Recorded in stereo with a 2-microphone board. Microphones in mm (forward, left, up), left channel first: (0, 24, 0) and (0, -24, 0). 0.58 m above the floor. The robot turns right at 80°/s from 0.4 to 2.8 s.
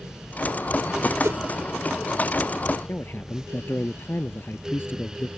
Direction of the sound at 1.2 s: 70° right (ahead or behind).